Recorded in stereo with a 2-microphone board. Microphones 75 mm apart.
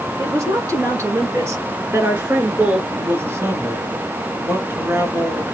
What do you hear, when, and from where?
0.2 s a woman speaking: 45° right (ahead or behind), 2.5 m; by 2.8 s 15° right (ahead or behind), 1.7 m
2.9 s a man speaking: 30° right (ahead or behind), 1.4 m